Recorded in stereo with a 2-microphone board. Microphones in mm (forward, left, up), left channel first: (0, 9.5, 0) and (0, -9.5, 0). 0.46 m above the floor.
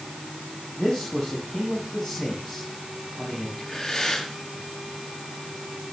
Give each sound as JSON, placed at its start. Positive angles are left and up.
{"t": 0.8, "sound": "a man speaking", "side_deg": 30, "distance_m": 4.0}
{"t": 3.6, "sound": "breathing", "side_deg": 25, "distance_m": 4.5}